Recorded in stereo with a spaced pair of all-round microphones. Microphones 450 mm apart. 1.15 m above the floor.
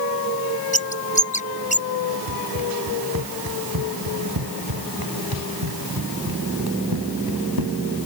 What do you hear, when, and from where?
0.7 s a bird: 15° left (ahead or behind)
2.3 s running footsteps: 50° right (ahead or behind); by 8.0 s 55° right (ahead or behind)